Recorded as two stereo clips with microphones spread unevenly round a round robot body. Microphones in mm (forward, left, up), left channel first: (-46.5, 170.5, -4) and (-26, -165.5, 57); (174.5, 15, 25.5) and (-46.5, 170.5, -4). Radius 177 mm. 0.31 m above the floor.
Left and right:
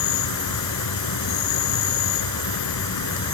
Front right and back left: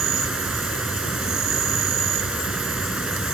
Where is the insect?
60° left.